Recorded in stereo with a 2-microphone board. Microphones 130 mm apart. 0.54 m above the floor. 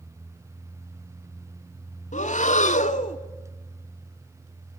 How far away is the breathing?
About 0.9 m.